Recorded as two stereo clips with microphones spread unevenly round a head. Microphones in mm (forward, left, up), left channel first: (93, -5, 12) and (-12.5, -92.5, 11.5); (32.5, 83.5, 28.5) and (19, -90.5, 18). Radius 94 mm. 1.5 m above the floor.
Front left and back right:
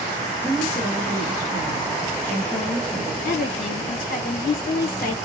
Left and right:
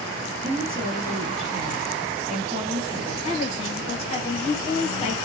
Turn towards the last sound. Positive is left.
turn(degrees=30)